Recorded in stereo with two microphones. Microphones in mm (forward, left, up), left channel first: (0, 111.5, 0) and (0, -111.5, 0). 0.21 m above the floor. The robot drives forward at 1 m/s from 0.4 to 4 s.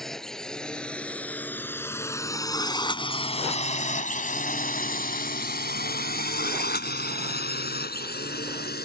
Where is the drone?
Centre (ahead or behind); by 8.8 s 45° left (ahead or behind).